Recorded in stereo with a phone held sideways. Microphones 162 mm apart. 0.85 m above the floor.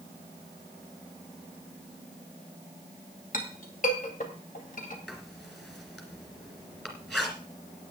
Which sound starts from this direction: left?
A clink, at 3.3 s.